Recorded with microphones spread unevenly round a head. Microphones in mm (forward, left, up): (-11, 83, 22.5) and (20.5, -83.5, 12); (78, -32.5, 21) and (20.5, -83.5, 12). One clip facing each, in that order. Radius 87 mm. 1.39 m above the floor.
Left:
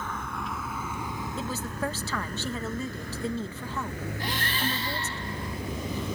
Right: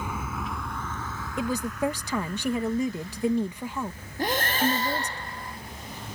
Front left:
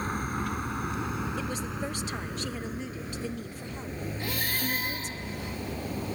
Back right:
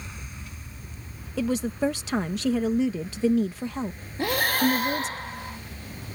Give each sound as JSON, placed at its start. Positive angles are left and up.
{"t": 0.0, "sound": "a vehicle", "azimuth_deg": 0}
{"t": 1.4, "sound": "a woman speaking", "azimuth_deg": -155}
{"t": 4.2, "sound": "breathing", "azimuth_deg": -125}